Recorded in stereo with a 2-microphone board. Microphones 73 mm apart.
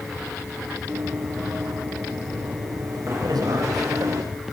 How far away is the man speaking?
About 8.5 m.